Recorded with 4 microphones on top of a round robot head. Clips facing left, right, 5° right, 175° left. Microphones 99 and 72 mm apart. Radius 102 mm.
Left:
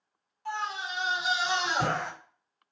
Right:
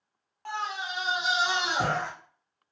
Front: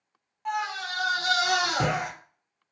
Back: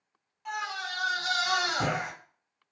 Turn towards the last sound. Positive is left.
turn(degrees=5)